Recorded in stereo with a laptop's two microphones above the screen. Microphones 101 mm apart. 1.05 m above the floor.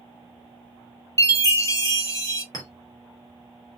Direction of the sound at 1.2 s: 30° left (ahead or behind).